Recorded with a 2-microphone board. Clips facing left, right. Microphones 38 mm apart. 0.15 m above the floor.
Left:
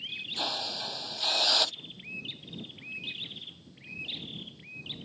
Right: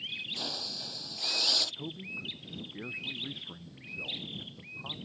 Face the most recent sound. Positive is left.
turn(degrees=-75)  # may be behind; listen again after turning